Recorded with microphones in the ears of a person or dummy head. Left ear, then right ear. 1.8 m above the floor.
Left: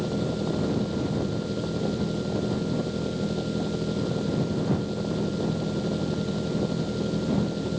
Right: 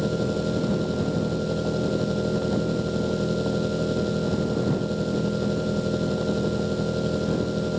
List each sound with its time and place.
0.0 s an engine running: 30° right (ahead or behind)